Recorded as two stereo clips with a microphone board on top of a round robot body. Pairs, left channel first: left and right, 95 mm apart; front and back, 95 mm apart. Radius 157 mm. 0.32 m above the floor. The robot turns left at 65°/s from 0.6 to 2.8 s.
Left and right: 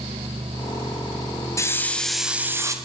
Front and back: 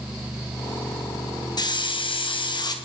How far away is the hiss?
About 4 m.